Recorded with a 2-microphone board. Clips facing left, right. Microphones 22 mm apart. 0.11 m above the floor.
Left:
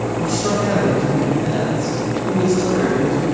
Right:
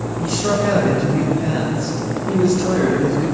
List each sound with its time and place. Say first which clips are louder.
0.2 s a man speaking: right 2 dB; 5° right (ahead or behind), 10 m; by 3.2 s 20° right (ahead or behind), 11.5 m